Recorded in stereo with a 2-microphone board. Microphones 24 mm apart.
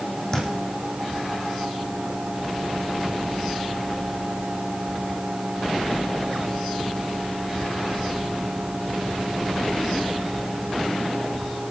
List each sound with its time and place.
0.3 s a thud: 20° left (ahead or behind), 4 m